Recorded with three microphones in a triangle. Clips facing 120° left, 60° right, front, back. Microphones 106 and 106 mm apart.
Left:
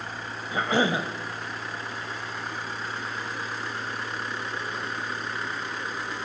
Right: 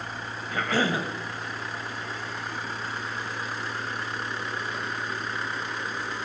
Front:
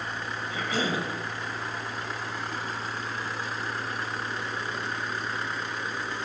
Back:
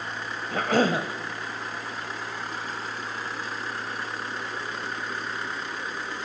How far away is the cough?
About 2 m.